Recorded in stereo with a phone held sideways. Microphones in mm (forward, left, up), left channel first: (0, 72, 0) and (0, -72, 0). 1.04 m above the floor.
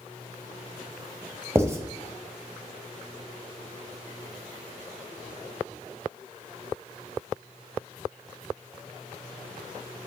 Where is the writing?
20° right (ahead or behind), 1.1 m.